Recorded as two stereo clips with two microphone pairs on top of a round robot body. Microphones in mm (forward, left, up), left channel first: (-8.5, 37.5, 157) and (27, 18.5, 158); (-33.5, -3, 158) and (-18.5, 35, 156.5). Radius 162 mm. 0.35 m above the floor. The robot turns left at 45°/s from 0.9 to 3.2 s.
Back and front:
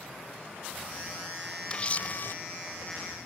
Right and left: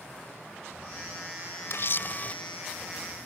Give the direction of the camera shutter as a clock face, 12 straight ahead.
5 o'clock.